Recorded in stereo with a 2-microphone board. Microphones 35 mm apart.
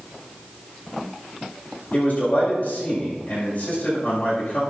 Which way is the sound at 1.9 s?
50° left (ahead or behind).